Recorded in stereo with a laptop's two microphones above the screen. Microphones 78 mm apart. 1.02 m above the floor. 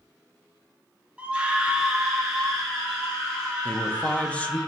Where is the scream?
15° right (ahead or behind), 0.6 m; by 4.7 s 5° left (ahead or behind), 2.5 m.